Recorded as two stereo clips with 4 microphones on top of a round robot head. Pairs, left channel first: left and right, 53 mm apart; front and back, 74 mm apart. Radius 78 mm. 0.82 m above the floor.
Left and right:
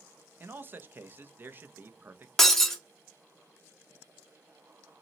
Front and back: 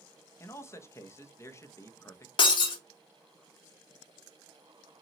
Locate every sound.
0.4 s a man speaking: 45° right, 0.5 m
2.4 s breaking glass: 5° left, 0.7 m